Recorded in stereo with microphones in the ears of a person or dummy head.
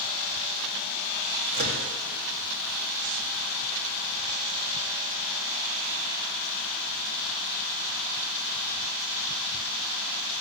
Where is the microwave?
50° right (ahead or behind), 2.5 m.